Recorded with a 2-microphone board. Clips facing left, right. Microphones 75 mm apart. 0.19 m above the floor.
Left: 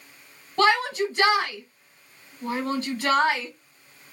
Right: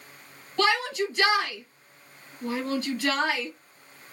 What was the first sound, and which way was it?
A shout, 30° left (ahead or behind).